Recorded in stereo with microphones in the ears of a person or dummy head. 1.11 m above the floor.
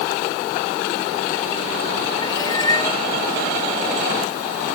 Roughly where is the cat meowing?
Left.